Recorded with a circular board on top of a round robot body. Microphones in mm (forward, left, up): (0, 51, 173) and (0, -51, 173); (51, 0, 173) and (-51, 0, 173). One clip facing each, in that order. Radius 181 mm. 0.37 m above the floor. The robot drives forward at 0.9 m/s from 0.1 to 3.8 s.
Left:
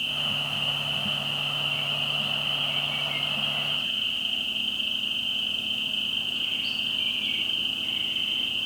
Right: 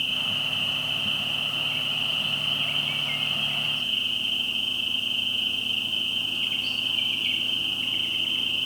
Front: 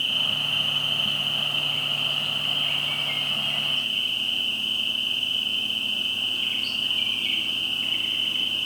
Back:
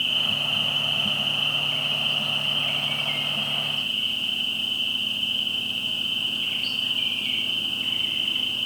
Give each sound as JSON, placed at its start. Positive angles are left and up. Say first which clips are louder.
{"t": 0.0, "sound": "an insect", "louder": "even, back 1 dB", "azimuth_deg": -70, "distance_m": 8.5}